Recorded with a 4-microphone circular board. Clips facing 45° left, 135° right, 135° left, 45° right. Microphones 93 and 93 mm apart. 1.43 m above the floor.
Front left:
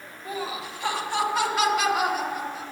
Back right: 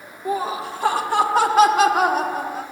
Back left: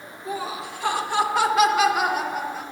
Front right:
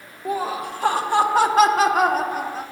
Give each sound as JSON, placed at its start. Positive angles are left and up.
{"t": 0.2, "sound": "laughter", "azimuth_deg": -85, "distance_m": 1.7}